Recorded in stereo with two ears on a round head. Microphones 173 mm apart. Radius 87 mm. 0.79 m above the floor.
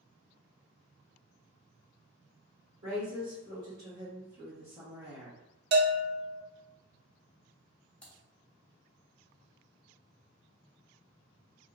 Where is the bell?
50° right (ahead or behind), 0.7 m.